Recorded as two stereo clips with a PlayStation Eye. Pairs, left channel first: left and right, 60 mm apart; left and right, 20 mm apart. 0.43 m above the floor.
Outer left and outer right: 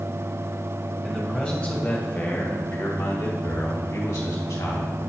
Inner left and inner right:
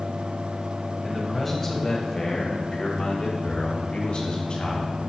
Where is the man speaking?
10° left (ahead or behind), 2.5 m; by 5.0 s 65° left (ahead or behind), 3.5 m.